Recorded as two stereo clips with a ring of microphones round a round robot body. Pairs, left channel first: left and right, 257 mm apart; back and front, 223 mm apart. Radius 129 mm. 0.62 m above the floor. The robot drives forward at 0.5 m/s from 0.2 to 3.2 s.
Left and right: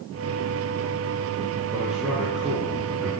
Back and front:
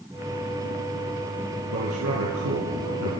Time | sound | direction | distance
1.7 | a man speaking | straight ahead | 6.5 m